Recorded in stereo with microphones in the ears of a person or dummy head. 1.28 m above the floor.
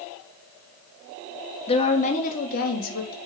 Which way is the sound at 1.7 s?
35° left (ahead or behind).